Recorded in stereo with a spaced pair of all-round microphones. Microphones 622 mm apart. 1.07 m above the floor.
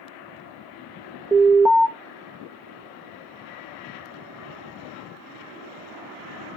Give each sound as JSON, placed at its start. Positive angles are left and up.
{"t": 1.3, "sound": "an alarm", "side_deg": -5, "distance_m": 0.8}